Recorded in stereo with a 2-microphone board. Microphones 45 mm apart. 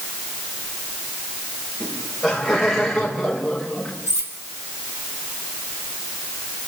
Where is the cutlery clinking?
75° right (ahead or behind), 5.5 m.